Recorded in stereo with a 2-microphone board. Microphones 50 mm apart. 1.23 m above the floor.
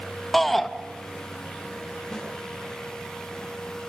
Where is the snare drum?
10° left (ahead or behind), 8.5 m.